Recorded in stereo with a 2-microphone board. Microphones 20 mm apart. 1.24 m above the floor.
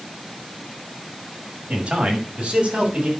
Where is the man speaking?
50° right (ahead or behind), 6 m; by 3.1 s 60° right (ahead or behind), 7.5 m.